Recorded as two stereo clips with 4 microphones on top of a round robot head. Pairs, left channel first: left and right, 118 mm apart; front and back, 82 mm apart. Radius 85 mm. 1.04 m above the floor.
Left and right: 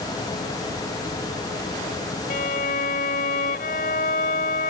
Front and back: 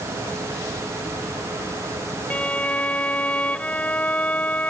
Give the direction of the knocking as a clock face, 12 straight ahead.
No knocking in this recording.